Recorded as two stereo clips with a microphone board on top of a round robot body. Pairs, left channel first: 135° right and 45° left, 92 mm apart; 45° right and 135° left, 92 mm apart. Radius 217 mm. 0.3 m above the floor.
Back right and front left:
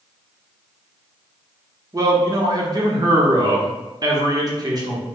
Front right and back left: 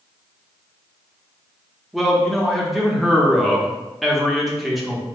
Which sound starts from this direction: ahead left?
A man speaking, at 1.9 s.